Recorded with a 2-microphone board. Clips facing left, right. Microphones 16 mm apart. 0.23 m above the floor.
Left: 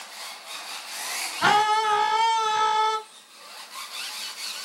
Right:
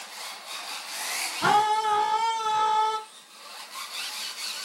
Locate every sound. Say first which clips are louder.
1.4 s a scream: left 2 dB; 25° left (ahead or behind), 1.4 m